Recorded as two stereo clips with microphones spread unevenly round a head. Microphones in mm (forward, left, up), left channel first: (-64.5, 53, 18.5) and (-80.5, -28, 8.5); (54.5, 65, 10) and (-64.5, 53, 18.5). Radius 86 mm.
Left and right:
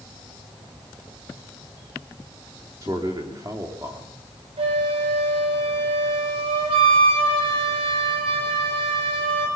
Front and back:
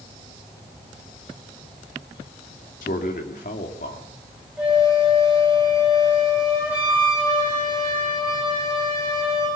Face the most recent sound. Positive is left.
turn(degrees=-90)